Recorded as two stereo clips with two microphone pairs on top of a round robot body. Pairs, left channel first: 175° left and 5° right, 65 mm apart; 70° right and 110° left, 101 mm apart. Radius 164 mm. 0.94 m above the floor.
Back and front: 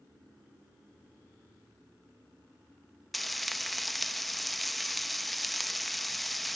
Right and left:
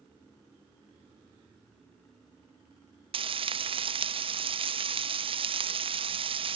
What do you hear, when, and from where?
3.1 s frying: 85° left